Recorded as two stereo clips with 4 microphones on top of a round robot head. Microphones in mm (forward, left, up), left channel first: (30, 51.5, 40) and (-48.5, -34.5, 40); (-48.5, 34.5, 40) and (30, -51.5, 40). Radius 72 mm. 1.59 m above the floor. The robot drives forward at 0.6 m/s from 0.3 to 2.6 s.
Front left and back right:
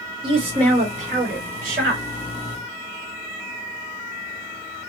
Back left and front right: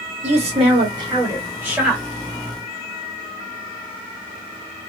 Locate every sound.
0.2 s a woman speaking: 80° right, 1.0 m; by 2.0 s 130° right, 1.3 m